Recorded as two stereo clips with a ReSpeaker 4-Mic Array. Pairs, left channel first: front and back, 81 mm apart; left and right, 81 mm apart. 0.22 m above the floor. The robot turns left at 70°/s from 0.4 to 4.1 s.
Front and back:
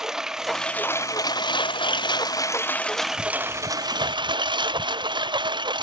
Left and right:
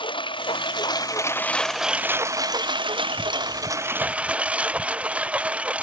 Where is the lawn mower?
95° left; by 5.8 s 165° right.